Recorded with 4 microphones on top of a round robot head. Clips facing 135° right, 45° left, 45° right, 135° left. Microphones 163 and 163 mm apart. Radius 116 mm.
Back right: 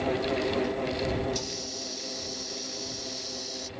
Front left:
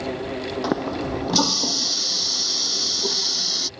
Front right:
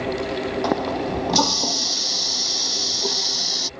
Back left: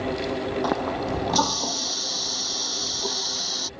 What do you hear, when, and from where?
0.6 s a running tap: 30° left